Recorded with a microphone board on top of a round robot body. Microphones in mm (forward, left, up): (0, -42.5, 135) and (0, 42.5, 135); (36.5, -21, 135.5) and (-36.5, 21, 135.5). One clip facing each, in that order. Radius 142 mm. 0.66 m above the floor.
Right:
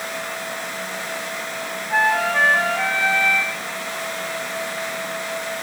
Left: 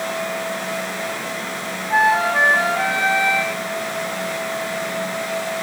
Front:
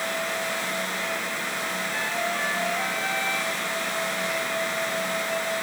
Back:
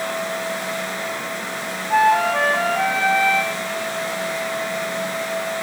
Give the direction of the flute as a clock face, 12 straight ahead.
7 o'clock.